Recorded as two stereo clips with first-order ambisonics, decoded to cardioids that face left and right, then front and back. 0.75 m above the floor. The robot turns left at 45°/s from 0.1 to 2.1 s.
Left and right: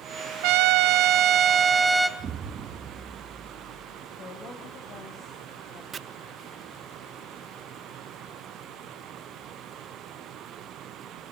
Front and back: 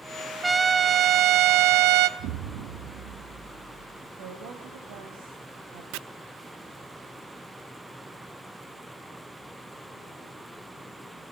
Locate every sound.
0.4 s a trumpet: 100° right, 0.8 m; by 2.1 s 175° right, 0.8 m
2.2 s an explosion: 150° right, 1.4 m
4.2 s a woman speaking: 155° left, 3.5 m
5.9 s chopping: 155° right, 0.6 m